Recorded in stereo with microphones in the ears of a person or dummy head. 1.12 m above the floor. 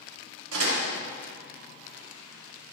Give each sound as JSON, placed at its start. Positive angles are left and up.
{"t": 0.5, "sound": "a door slam", "side_deg": -85, "distance_m": 2.5}